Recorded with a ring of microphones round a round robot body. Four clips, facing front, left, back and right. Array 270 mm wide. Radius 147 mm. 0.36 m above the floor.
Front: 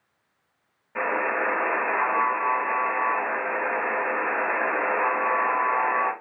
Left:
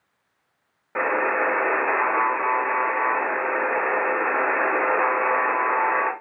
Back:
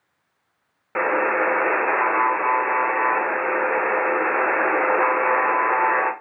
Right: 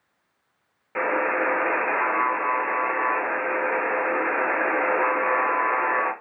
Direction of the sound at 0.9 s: 165° left.